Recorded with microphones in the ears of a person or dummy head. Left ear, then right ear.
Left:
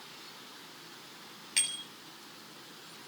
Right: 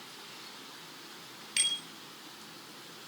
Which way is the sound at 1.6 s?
5° left (ahead or behind).